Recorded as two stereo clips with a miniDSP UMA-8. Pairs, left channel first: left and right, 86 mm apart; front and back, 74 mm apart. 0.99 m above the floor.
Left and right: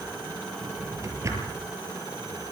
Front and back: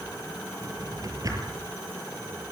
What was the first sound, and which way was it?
A drawer, 140° right.